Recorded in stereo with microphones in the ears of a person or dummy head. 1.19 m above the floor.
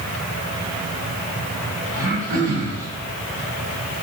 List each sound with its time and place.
1.9 s throat clearing: 25° right (ahead or behind), 4.5 m